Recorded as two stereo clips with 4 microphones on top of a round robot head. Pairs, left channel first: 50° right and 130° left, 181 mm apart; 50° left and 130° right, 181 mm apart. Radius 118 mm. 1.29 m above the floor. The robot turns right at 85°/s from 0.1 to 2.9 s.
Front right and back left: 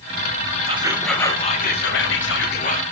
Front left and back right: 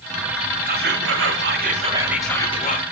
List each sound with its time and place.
0.7 s whispering: 175° right, 1.7 m; by 2.8 s 10° left, 1.7 m